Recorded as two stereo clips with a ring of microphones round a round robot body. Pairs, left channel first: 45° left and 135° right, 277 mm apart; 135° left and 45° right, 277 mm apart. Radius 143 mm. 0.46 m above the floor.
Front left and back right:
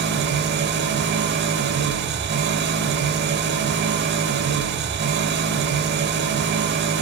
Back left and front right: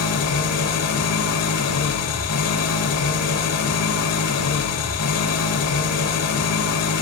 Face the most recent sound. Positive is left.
turn(degrees=170)